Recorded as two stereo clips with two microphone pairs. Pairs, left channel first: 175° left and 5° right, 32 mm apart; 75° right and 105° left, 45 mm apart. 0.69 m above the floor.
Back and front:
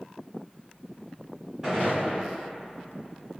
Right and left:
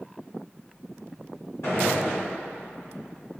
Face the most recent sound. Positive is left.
turn(degrees=-70)